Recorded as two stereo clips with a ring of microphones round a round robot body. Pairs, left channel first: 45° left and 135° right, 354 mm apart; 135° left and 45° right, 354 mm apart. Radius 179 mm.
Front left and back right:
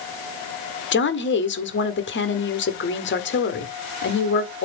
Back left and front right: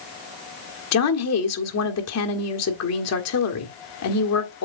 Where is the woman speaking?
100° left, 1.7 m.